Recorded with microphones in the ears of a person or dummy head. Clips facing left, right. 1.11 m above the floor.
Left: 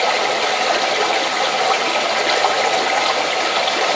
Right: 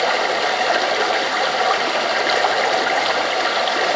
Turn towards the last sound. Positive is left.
turn(degrees=-5)  # may be behind; listen again after turning